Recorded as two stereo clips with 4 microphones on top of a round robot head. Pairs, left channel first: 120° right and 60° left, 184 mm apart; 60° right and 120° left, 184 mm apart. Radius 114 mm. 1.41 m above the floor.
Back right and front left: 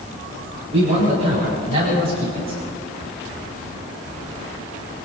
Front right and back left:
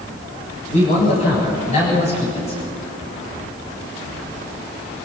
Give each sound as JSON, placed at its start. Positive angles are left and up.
{"t": 0.7, "sound": "a man speaking", "azimuth_deg": -5, "distance_m": 9.5}